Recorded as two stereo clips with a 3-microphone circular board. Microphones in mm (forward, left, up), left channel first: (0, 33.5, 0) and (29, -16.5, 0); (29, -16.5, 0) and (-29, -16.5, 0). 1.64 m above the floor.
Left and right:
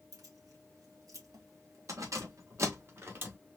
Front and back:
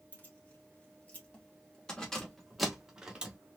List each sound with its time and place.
0.1 s keys jangling: 55° right, 2 m; by 3.4 s 110° right, 1.2 m